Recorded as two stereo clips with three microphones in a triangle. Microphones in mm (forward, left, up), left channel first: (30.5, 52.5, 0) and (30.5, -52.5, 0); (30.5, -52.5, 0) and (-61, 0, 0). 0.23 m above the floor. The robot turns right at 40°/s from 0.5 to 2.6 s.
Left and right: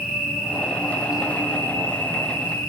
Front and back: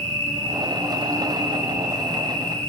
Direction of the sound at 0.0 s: Straight behind.